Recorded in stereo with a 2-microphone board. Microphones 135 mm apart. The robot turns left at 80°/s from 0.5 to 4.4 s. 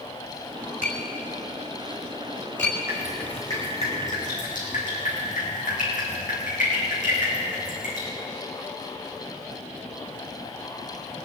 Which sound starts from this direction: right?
Dripping, at 2.9 s.